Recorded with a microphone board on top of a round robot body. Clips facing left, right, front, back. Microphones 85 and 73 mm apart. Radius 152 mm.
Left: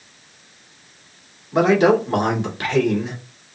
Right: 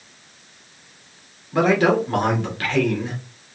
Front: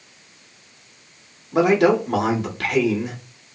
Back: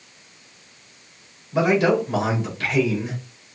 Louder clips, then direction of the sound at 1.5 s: Left 2 dB, front 2 dB; 20° left.